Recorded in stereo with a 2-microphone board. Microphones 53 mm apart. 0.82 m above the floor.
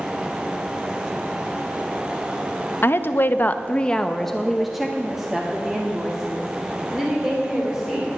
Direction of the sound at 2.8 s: 45° left (ahead or behind).